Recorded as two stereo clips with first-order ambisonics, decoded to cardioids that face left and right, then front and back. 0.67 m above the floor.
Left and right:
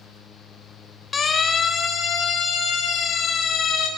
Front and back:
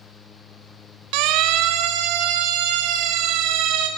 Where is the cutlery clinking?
I don't hear cutlery clinking.